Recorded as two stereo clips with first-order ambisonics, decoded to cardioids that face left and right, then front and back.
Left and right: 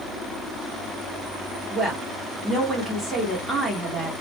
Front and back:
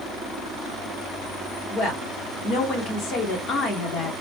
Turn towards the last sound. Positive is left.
turn(degrees=-15)